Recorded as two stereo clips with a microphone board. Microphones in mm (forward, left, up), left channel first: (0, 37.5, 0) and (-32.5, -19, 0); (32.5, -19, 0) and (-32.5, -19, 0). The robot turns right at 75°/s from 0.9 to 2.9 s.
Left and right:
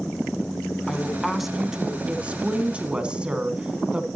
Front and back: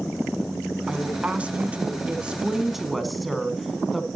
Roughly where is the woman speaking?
Behind left.